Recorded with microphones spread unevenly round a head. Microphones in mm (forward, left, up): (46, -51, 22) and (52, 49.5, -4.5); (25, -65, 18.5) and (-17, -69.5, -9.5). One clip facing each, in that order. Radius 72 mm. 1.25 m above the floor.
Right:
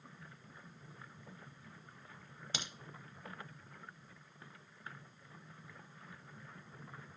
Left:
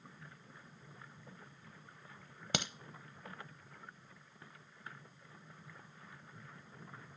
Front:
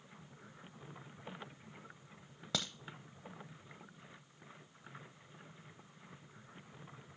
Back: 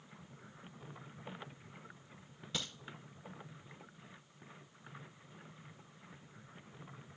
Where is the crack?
70° left, 0.8 m.